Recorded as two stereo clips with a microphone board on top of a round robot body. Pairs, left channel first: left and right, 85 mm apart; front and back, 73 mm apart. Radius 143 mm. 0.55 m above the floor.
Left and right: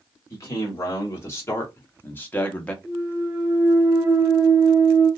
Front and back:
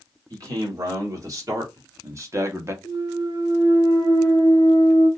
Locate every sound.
0.3 s a man speaking: 140° left, 2.5 m; by 2.7 s 160° left, 1.2 m
2.8 s a clunk: 170° right, 1.3 m